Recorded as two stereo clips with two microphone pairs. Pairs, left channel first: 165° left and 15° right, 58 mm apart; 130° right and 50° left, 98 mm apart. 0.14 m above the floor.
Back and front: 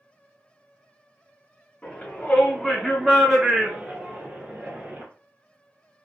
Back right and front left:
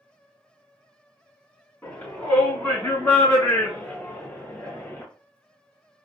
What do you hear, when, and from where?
1.8 s a shout: straight behind, 1.3 m; by 5.0 s 60° right, 1.9 m